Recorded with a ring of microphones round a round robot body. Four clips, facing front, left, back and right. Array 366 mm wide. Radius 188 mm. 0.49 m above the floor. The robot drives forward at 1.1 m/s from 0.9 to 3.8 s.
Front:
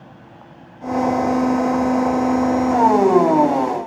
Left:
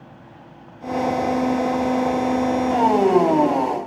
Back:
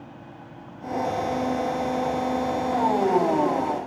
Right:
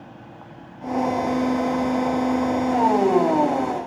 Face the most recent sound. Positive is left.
No sound to turn to.